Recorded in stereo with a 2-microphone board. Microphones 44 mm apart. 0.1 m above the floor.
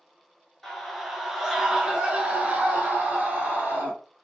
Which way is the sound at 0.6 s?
10° left (ahead or behind).